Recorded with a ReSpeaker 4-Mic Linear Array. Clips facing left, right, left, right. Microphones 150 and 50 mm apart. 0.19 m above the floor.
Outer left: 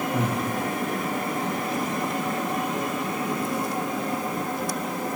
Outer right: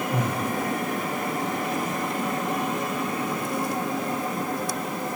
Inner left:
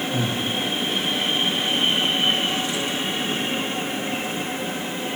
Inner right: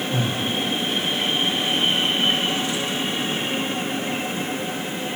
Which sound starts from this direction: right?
Breathing, at 0.1 s.